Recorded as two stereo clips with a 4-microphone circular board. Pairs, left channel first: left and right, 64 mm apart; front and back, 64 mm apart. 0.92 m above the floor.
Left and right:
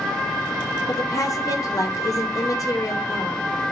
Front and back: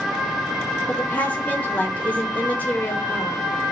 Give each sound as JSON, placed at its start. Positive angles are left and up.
{"t": 0.9, "sound": "a woman speaking", "azimuth_deg": 65, "distance_m": 4.0}